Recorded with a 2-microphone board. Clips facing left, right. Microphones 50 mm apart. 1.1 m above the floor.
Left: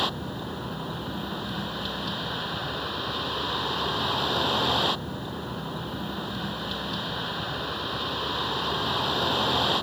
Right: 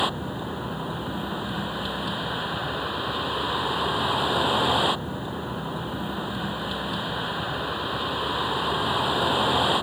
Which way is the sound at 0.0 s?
15° right (ahead or behind).